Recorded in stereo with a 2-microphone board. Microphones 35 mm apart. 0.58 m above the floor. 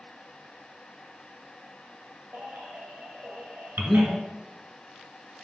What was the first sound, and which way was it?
A baby crying, 85° right.